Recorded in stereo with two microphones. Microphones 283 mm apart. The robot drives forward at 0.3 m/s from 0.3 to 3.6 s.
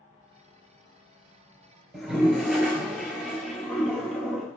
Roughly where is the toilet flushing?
Centre.